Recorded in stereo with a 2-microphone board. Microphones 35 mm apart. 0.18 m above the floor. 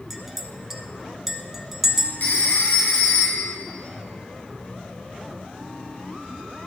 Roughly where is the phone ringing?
Left.